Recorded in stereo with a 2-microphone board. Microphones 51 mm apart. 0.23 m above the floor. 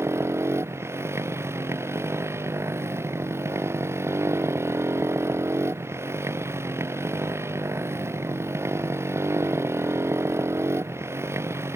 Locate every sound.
0.0 s a motorcycle: 60° right (ahead or behind)